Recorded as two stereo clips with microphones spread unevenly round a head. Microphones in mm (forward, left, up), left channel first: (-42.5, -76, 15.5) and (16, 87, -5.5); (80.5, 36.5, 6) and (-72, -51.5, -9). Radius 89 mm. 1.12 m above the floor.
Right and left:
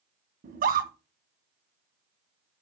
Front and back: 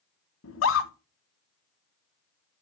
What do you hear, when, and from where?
0.4 s a scream: 35° left, 1.0 m